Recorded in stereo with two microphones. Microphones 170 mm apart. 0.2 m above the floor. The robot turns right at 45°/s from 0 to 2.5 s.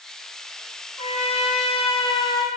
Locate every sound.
1.0 s a trumpet: 75° left, 1.3 m; by 2.5 s 140° left, 1.3 m